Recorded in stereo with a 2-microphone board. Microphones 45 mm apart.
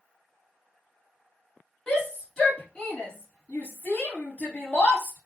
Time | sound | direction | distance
1.9 | a shout | 15° left (ahead or behind) | 1.4 m